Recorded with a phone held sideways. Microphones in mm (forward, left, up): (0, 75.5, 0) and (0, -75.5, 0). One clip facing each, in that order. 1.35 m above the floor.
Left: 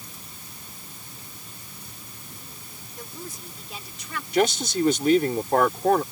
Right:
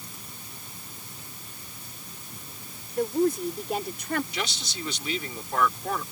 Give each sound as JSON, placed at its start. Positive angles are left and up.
{"t": 3.0, "sound": "a woman speaking", "side_deg": -65}
{"t": 4.3, "sound": "a man speaking", "side_deg": 50}